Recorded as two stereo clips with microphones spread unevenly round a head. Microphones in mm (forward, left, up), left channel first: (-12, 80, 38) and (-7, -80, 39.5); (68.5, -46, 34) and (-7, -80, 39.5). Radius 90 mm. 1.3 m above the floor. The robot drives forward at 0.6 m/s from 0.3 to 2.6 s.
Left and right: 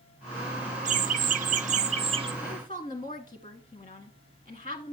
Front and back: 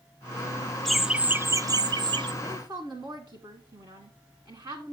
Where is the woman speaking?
150° left, 1.3 m; by 4.9 s 155° left, 1.4 m.